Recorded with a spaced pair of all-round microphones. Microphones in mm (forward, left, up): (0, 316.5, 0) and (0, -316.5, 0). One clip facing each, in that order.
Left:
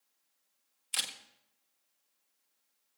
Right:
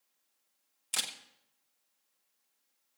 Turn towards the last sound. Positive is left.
turn(degrees=-65)  # may be behind; listen again after turning